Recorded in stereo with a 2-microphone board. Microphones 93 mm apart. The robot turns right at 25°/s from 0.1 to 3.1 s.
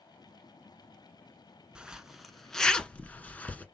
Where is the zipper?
10° right (ahead or behind), 0.7 m; by 3.6 s 15° left (ahead or behind), 0.7 m.